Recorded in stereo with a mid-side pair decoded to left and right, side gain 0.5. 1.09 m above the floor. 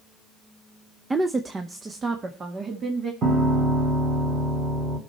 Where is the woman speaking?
20° right, 0.7 m; by 3.1 s 40° right, 2 m.